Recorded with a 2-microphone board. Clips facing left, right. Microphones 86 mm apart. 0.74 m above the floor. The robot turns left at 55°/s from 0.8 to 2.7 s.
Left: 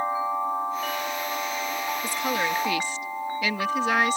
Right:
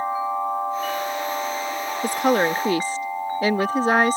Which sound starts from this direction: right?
A woman speaking, at 2.0 s.